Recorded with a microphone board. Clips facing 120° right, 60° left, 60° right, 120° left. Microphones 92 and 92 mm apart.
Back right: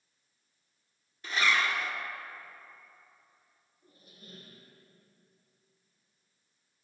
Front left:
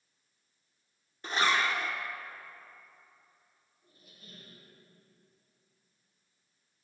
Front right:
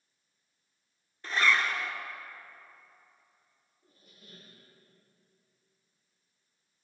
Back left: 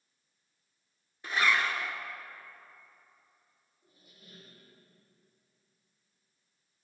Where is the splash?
I don't hear a splash.